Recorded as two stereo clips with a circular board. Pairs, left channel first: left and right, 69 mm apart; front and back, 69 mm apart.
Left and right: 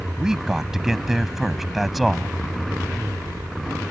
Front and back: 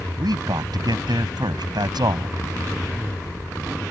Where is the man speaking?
170° right; by 2.3 s straight behind.